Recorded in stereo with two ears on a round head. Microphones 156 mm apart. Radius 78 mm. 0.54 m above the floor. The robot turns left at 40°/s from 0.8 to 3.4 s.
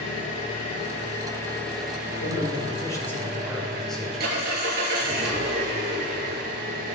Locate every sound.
0.0 s an engine running: 45° left, 4.5 m; by 7.0 s 60° right, 4.5 m
2.2 s a man speaking: 50° left, 4 m; by 4.5 s 5° left, 4 m